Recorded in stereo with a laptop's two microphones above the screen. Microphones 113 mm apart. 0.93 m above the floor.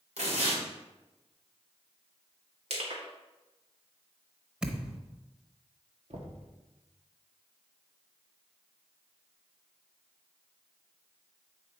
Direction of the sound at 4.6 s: 5° right (ahead or behind).